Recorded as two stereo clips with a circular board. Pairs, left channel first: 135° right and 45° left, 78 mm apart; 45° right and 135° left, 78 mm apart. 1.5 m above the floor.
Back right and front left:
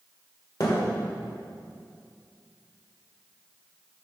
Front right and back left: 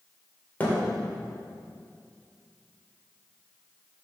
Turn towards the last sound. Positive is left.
turn(degrees=-110)